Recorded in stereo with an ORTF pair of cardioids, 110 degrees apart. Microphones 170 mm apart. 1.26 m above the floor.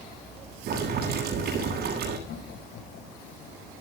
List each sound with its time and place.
0.7 s boiling: 65° right, 9.5 m
2.3 s laughter: 65° left, 6.5 m